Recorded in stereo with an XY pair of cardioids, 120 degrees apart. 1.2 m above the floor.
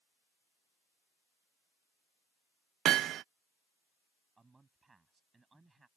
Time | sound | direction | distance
2.9 | hammering | 60° right | ?
4.4 | a man speaking | 20° right | ?